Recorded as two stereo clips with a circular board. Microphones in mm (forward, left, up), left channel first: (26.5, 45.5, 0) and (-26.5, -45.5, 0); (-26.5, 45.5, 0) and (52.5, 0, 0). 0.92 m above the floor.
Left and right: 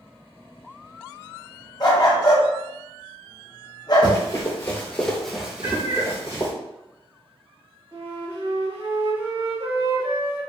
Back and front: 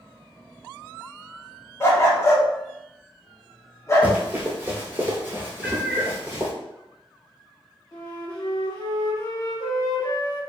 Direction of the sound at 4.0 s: 35° left.